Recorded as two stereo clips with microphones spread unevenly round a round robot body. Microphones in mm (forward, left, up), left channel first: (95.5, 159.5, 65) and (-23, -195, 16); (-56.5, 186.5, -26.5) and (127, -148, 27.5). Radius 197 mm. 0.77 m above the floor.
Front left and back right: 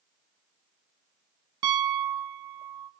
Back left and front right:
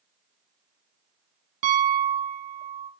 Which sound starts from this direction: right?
A piano, at 1.6 s.